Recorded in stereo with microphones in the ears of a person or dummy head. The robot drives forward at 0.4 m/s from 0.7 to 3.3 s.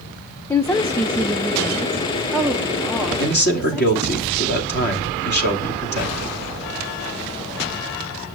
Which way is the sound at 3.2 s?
55° left (ahead or behind).